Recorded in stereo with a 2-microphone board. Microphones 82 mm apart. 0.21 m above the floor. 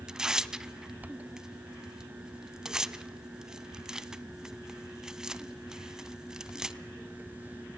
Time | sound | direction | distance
0.1 | tearing paper | 10° right (ahead or behind) | 0.5 m